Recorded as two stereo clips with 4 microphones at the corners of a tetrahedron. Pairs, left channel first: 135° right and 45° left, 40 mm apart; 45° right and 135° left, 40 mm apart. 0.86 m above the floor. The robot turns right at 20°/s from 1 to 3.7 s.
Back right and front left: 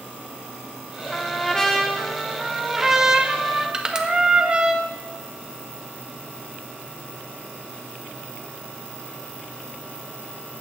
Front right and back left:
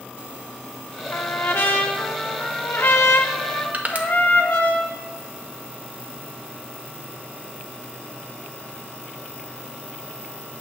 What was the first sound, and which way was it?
A trumpet, 70° right.